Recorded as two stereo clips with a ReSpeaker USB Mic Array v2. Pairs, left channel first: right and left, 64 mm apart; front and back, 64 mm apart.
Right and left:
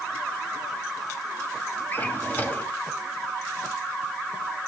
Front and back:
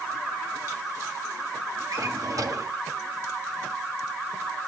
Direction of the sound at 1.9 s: 150° right.